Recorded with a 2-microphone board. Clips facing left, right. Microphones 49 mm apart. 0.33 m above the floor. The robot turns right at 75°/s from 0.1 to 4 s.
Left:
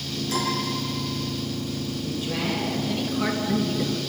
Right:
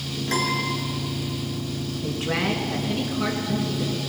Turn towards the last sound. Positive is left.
turn(degrees=55)